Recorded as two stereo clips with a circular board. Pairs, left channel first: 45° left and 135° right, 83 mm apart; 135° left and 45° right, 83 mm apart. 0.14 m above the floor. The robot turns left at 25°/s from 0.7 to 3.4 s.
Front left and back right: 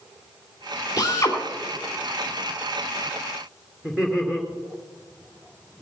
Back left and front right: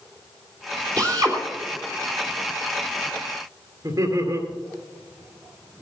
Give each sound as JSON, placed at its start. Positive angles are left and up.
{"t": 1.0, "sound": "a drill", "azimuth_deg": 0, "distance_m": 3.0}
{"t": 3.8, "sound": "laughter", "azimuth_deg": -60, "distance_m": 2.5}